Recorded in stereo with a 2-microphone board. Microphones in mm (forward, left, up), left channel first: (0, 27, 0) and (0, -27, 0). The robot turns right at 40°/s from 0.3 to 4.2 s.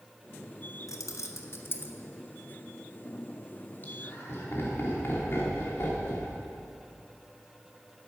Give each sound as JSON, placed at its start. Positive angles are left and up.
{"t": 0.9, "sound": "keys jangling", "side_deg": 75, "distance_m": 0.8}
{"t": 3.8, "sound": "laughter", "side_deg": 35, "distance_m": 2.5}